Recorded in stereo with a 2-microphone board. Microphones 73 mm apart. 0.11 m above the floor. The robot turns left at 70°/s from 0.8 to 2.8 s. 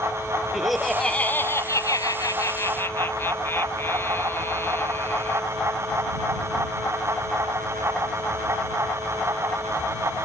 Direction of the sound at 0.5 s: 175° right.